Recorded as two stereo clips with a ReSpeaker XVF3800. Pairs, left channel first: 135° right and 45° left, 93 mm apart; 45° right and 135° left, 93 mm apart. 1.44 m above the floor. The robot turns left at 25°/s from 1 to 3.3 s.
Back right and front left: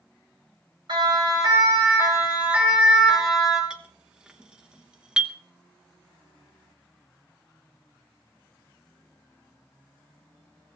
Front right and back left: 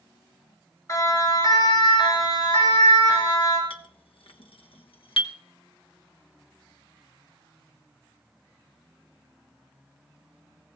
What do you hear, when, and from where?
0.9 s a siren: 10° left, 8 m; by 3.6 s 45° right, 6.5 m
3.7 s a clink: 35° right, 1.1 m